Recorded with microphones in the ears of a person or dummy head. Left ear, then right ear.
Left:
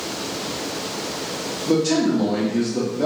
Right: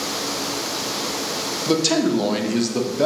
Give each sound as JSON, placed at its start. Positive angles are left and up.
{"t": 1.7, "sound": "a man speaking", "side_deg": -45, "distance_m": 0.6}